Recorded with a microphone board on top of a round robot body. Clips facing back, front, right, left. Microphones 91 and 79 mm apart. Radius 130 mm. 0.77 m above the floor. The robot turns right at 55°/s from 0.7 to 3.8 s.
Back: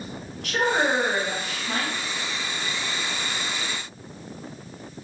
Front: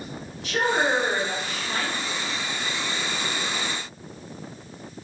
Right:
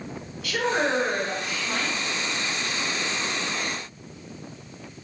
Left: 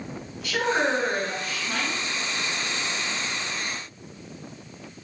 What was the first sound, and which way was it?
A woman speaking, 145° left.